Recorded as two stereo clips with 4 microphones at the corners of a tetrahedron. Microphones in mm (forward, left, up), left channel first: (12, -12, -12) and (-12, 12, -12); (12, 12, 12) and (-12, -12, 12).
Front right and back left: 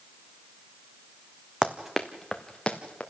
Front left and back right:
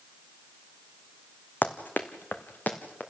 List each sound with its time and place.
1.6 s running footsteps: 70° left, 1.3 m; by 3.0 s 15° left, 2.5 m